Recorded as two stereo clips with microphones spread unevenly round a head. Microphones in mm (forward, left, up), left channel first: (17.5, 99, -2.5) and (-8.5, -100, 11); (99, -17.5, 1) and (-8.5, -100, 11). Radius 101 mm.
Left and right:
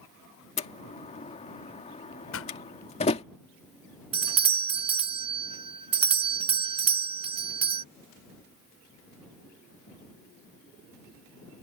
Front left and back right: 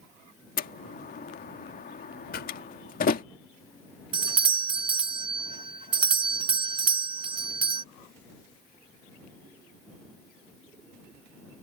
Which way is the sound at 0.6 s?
20° left.